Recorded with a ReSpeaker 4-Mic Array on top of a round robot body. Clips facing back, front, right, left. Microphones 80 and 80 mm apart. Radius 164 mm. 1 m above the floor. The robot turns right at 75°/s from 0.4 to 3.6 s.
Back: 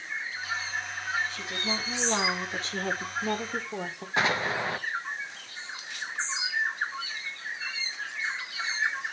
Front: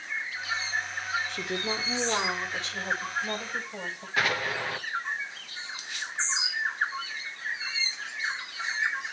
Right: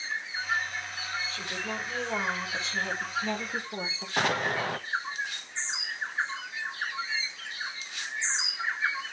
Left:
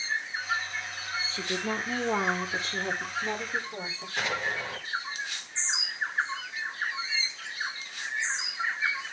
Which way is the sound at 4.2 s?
115° right.